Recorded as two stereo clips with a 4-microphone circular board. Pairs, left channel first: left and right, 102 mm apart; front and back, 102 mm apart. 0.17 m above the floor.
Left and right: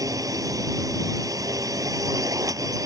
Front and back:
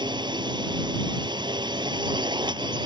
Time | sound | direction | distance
0.0 | a drone | 140° right | ?